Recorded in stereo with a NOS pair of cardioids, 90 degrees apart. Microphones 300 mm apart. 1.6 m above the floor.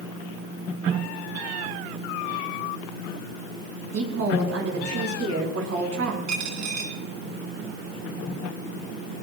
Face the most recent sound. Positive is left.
turn(degrees=-70)